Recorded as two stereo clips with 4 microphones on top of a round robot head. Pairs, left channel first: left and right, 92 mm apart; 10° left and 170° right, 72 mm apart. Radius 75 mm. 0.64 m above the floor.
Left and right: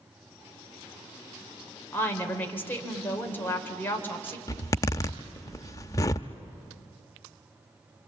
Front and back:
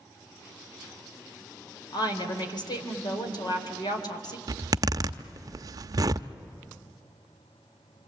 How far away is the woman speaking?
About 3.5 m.